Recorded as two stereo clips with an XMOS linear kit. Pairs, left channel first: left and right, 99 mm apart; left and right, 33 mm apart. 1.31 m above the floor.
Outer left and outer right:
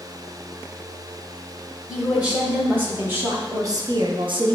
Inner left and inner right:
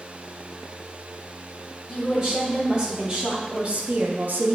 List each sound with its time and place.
1.9 s a woman speaking: 15° right (ahead or behind), 1.8 m; by 4.5 s 80° right, 0.6 m